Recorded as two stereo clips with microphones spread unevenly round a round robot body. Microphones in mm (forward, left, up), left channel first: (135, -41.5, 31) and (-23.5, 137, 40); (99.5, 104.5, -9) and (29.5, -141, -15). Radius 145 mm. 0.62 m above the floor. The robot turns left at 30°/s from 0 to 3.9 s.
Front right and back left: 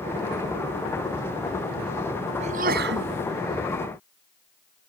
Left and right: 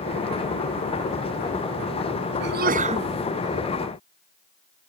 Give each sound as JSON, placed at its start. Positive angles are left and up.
{"t": 2.4, "sound": "a sneeze", "azimuth_deg": -160}